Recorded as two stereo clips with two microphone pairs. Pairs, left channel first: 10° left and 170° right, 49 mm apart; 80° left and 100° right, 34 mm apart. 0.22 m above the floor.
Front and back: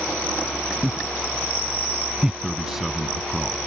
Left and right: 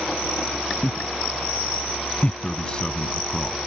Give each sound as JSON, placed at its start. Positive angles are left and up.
{"t": 0.8, "sound": "laughter", "azimuth_deg": 120}
{"t": 2.4, "sound": "a man speaking", "azimuth_deg": 115}